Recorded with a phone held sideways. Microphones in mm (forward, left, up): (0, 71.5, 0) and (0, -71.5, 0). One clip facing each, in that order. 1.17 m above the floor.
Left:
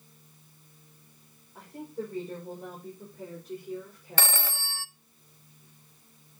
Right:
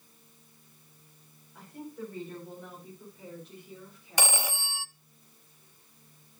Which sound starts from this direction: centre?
A phone ringing, at 4.2 s.